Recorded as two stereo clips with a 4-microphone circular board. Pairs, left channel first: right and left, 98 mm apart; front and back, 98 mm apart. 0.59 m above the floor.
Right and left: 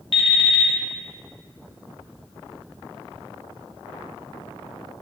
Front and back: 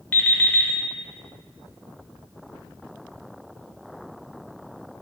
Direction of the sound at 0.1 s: 75° right.